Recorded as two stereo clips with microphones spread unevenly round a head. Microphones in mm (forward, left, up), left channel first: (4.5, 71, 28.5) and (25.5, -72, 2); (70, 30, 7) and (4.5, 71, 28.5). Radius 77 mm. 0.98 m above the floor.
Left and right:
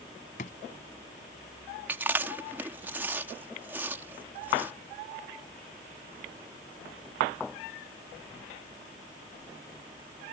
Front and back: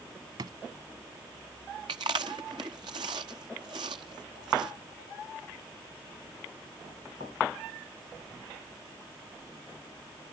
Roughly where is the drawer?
Behind left.